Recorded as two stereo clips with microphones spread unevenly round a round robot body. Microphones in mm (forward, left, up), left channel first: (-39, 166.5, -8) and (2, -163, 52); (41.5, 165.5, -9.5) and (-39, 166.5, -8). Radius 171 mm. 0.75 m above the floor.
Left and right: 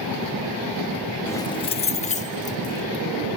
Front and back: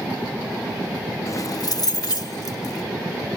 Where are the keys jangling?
30° left.